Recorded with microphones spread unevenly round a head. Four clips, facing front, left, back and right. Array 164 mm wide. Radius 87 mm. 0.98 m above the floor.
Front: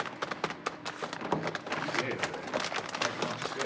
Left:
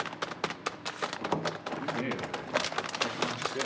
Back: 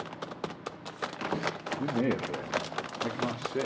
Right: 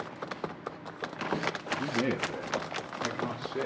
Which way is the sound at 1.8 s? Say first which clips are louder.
Right 4 dB, back 6 dB; 155° right.